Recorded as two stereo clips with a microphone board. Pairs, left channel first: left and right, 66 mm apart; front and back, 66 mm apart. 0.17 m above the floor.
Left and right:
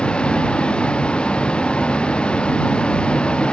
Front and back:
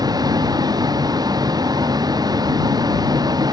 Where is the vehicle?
165° left.